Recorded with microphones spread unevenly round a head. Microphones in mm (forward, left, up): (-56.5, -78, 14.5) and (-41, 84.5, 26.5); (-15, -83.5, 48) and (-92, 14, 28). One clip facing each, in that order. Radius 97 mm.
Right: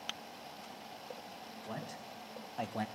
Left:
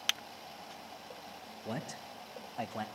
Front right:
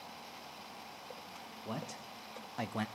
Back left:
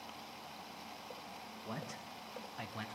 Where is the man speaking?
30° left, 1.0 m; by 2.9 s 30° right, 0.6 m.